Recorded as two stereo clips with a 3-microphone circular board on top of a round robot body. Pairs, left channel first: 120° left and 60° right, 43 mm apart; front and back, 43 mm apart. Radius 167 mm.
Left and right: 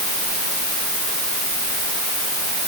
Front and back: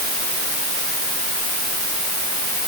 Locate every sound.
Only background noise.